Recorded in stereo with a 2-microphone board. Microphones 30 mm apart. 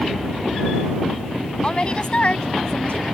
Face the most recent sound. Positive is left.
turn(degrees=50)  # may be behind; listen again after turning